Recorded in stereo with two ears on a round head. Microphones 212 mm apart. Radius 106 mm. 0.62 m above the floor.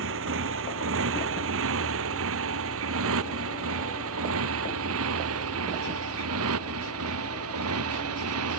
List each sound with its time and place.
0.0 s a motorcycle: 55° right (ahead or behind); by 8.6 s 65° right (ahead or behind)